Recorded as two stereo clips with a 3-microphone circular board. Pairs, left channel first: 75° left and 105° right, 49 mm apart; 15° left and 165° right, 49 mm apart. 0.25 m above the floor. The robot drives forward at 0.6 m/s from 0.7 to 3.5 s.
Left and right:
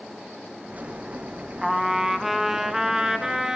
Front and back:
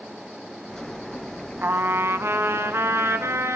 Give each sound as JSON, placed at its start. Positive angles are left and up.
{"t": 1.6, "sound": "a trumpet", "azimuth_deg": 165, "distance_m": 0.9}